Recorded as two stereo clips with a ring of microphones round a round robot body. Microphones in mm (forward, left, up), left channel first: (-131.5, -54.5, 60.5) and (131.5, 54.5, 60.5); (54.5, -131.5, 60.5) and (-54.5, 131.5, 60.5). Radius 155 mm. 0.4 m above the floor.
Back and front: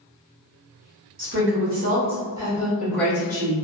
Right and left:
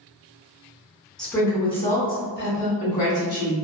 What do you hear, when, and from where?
1.2 s a woman speaking: 20° left, 1.0 m; by 3.5 s 85° right, 1.4 m